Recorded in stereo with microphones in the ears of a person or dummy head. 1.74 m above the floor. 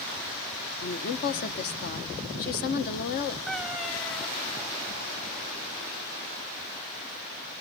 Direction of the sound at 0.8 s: 50° left (ahead or behind).